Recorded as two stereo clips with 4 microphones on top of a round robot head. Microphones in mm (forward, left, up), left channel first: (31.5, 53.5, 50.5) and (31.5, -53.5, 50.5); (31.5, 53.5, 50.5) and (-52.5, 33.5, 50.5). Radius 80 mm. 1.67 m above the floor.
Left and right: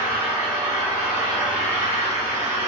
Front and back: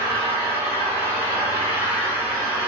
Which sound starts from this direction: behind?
An engine running, at 0.0 s.